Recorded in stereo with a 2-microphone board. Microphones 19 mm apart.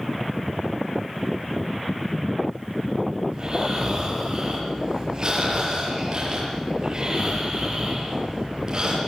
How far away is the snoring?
About 7.5 m.